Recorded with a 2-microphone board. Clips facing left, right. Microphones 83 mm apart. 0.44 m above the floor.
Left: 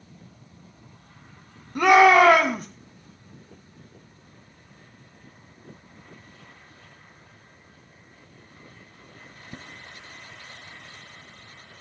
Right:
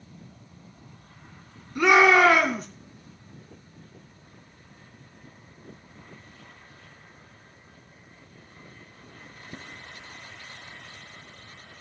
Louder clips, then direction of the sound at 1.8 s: Left 3 dB; 55° left (ahead or behind).